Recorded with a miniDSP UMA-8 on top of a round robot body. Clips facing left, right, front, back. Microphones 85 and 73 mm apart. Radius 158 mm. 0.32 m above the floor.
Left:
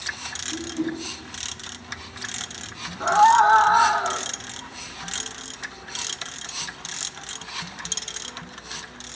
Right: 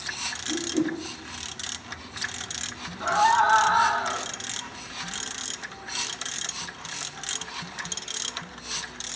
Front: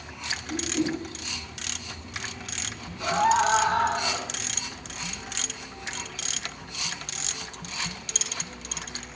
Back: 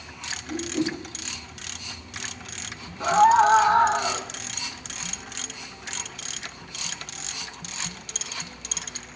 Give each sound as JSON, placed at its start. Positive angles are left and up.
{"t": 0.5, "sound": "a whoosh", "azimuth_deg": -120, "distance_m": 3.5}
{"t": 3.0, "sound": "a scream", "azimuth_deg": 145, "distance_m": 1.6}